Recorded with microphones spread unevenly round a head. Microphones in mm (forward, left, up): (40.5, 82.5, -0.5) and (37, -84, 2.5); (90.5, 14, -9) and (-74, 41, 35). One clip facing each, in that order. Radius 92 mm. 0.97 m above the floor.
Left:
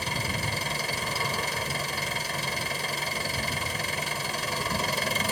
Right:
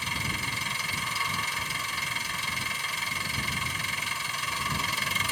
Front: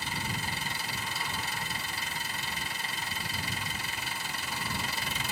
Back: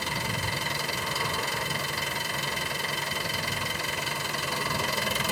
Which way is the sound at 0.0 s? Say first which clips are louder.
Left 4 dB, back 4 dB; 150° left.